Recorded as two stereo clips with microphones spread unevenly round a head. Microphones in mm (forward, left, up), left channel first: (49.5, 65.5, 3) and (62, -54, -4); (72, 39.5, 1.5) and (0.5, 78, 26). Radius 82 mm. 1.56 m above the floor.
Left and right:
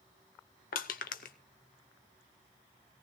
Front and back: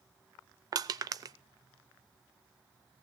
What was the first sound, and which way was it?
Crushing, 110° left.